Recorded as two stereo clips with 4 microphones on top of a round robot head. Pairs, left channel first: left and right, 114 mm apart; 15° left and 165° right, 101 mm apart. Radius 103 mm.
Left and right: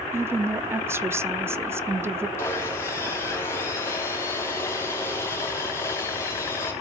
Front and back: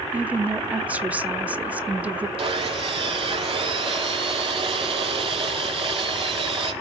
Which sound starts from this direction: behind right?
A woman speaking, at 0.1 s.